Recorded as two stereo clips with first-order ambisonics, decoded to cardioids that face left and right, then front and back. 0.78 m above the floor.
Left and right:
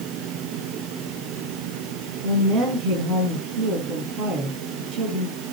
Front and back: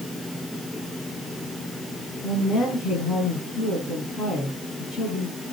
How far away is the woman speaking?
About 9 m.